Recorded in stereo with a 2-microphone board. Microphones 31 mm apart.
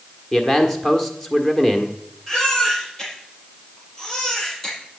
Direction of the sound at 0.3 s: 15° left (ahead or behind).